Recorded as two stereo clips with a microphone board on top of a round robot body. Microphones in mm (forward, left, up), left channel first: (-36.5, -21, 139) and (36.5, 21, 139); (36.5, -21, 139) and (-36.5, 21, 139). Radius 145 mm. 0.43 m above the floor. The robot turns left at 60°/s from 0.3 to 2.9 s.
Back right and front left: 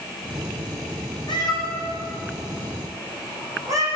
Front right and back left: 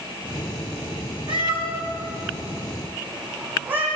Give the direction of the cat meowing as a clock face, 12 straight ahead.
6 o'clock.